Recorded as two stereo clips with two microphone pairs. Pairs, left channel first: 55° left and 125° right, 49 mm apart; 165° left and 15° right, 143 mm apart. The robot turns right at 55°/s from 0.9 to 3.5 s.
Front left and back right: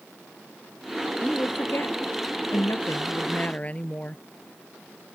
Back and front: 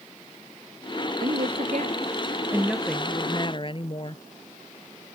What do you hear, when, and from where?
1.2 s a woman speaking: 10° right; by 4.2 s 115° left